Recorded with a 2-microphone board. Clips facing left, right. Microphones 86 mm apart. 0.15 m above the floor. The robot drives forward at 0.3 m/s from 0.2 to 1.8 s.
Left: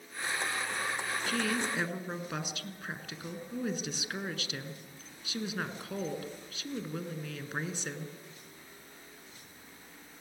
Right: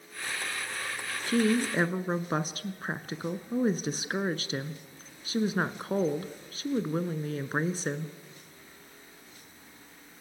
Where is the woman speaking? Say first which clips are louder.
Right 8 dB; 40° right (ahead or behind), 1.3 m.